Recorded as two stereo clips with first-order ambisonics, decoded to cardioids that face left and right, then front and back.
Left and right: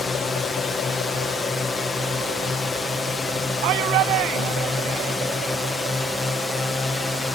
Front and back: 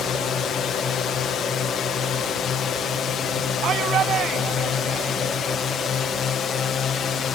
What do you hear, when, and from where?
0.0 s a drone: 25° left; by 7.3 s 15° left
3.6 s a shout: 125° right